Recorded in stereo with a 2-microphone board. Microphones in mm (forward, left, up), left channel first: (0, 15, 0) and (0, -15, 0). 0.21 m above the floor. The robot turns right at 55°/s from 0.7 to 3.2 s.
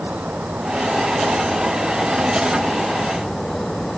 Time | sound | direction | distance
0.0 | an insect | 135° right | ?